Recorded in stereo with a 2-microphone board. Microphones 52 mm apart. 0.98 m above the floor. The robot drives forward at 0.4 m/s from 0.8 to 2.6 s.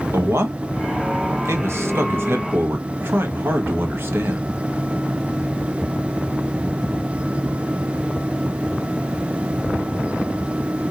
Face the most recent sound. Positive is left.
turn(degrees=-45)  # may be behind; listen again after turning